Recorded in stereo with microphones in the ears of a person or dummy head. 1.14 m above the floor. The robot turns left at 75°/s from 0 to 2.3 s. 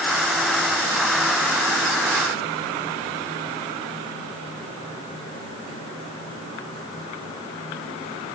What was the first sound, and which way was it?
Only background noise.